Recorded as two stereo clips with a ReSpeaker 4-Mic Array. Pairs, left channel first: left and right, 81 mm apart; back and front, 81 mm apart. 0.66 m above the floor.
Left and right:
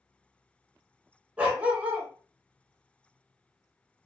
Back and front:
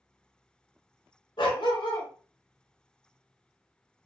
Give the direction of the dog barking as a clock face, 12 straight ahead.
5 o'clock.